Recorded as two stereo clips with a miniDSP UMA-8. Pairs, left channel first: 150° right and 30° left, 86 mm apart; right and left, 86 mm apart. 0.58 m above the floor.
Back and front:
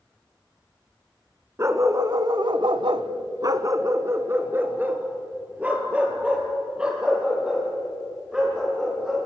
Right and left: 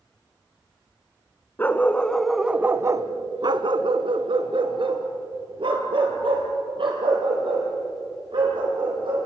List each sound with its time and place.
1.6 s a dog barking: 25° right, 1.4 m; by 9.3 s 115° left, 6 m